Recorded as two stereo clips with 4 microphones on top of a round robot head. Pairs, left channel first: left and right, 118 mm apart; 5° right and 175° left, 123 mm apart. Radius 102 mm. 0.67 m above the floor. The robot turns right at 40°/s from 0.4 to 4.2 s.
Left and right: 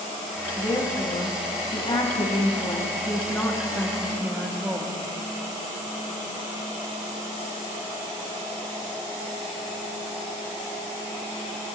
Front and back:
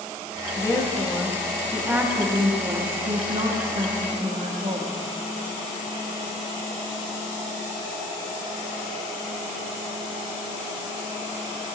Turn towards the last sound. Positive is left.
turn(degrees=-165)